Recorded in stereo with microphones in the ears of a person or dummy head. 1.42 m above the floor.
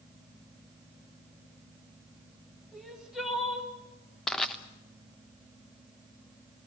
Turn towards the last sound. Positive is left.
turn(degrees=0)  # may be behind; listen again after turning